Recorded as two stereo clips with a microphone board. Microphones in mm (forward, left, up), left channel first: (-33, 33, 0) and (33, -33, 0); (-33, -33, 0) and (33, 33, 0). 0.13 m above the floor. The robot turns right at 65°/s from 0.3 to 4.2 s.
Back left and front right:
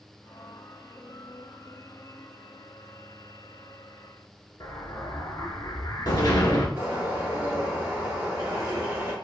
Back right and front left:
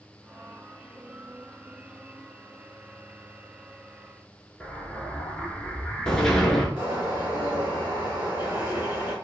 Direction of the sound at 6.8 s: 5° right.